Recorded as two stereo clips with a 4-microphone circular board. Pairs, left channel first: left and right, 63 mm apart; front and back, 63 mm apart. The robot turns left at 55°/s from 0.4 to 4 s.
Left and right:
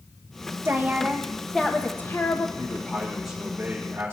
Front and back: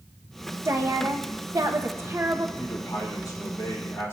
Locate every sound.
0.7 s a woman speaking: 140° right, 0.9 m; by 2.5 s 120° left, 0.9 m
2.6 s a man speaking: 35° left, 3.5 m; by 4.1 s 45° right, 3.5 m